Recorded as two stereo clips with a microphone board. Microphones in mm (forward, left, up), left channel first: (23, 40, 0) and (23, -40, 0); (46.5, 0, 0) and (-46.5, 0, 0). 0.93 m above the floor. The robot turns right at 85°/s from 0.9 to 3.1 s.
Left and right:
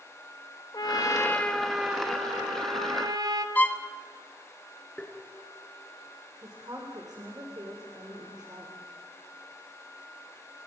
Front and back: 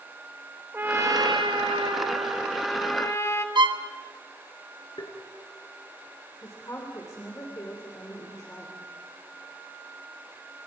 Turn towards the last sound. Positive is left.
turn(degrees=-55)